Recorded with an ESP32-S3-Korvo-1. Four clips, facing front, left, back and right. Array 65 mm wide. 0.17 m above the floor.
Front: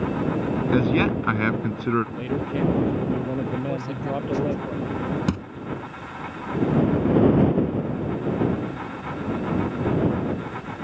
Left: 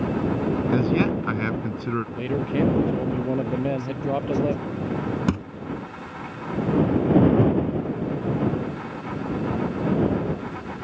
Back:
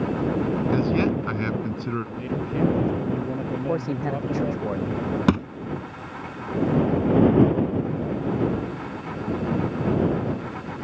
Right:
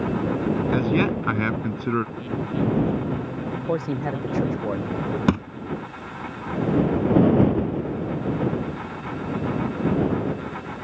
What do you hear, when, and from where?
0.7 s a man speaking: 25° right
2.1 s a man speaking: 75° left
3.5 s a man speaking: 120° right
5.3 s a thud: 150° right